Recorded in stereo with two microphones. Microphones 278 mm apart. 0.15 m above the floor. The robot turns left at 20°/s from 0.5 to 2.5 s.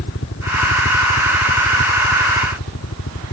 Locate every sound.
0.0 s a helicopter: 55° left (ahead or behind); by 3.3 s 60° left (ahead or behind)